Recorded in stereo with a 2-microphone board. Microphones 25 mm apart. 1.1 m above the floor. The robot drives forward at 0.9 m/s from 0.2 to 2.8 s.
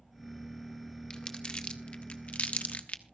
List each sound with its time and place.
1.1 s crumpling: 35° left (ahead or behind), 1.8 m; by 3.0 s 75° left (ahead or behind), 1.1 m